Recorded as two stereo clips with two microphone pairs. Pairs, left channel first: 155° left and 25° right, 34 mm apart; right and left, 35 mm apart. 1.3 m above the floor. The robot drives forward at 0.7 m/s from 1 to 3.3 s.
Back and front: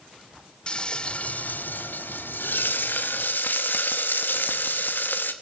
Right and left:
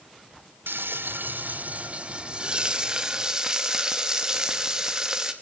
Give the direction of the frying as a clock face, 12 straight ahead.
9 o'clock.